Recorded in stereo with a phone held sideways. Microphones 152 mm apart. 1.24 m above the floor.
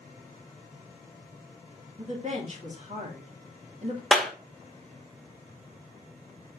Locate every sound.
2.0 s a woman speaking: 45° right (ahead or behind), 2.5 m
4.1 s a clap: centre (ahead or behind), 1.2 m